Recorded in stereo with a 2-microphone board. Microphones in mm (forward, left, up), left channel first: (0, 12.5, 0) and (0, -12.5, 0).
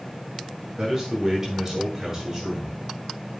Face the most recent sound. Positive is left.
turn(degrees=-20)  # may be behind; listen again after turning